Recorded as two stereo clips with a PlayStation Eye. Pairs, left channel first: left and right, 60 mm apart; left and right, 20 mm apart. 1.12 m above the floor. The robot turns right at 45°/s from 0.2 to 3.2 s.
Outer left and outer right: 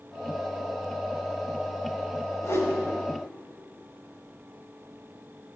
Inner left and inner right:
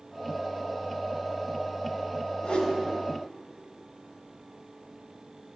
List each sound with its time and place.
2.4 s a whoosh: 55° left (ahead or behind), 2.0 m; by 2.8 s 65° left (ahead or behind), 2.0 m